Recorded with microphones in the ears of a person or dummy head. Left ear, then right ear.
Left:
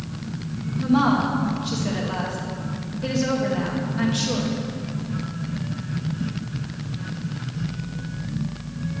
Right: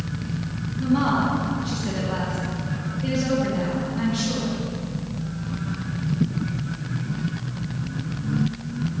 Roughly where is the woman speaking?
Left.